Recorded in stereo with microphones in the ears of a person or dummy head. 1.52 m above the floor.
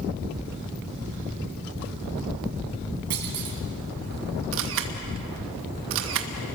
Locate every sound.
3.1 s a clunk: 60° right (ahead or behind), 4 m
4.5 s a camera shutter: 70° right (ahead or behind), 1.9 m